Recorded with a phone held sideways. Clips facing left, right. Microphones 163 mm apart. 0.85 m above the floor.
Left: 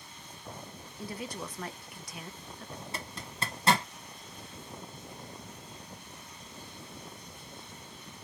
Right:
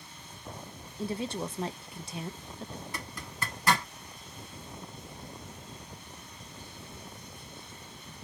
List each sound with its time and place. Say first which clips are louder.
1.0 s a woman speaking: right 6 dB; 25° right (ahead or behind), 0.5 m
2.9 s a zipper: even; 25° left (ahead or behind), 1.0 m